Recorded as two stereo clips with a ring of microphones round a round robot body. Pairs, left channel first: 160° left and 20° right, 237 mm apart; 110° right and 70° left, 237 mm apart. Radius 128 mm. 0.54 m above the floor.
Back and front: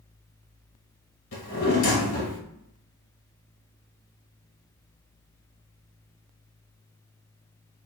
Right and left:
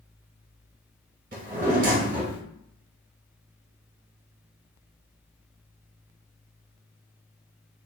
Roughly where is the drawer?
Behind left.